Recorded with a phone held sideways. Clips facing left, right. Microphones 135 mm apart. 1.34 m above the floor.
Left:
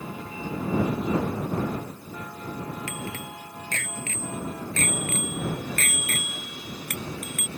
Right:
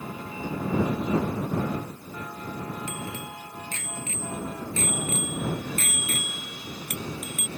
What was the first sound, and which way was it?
A bicycle bell, 80° left.